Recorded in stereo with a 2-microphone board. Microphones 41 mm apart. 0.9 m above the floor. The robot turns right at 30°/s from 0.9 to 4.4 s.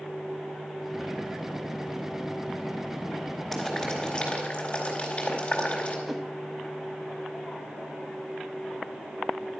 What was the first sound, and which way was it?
Boiling, 10° left (ahead or behind).